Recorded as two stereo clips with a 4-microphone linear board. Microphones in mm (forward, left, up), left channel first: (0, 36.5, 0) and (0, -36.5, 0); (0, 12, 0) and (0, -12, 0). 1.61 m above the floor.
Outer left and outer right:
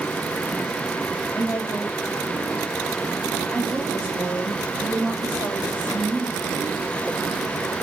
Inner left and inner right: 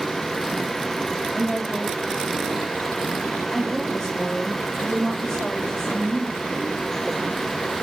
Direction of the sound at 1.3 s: 35° left (ahead or behind).